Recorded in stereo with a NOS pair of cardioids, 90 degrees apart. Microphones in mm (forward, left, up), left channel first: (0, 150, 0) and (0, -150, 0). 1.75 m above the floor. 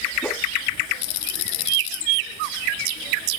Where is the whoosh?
5° left, 1.4 m.